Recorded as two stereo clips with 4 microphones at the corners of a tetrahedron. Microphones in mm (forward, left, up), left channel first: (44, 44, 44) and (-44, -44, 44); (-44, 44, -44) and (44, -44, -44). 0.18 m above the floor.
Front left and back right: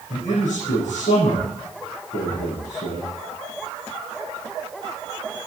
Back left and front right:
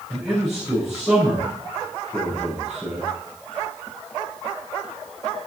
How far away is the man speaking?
About 8 m.